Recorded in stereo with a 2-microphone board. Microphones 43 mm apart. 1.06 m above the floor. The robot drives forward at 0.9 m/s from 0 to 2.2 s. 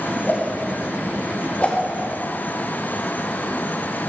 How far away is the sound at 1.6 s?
About 1.0 m.